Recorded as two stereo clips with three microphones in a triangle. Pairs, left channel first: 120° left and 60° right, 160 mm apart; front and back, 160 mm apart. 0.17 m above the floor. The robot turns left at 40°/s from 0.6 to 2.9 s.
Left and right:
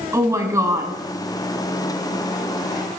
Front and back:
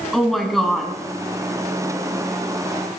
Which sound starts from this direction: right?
A woman speaking, at 0.1 s.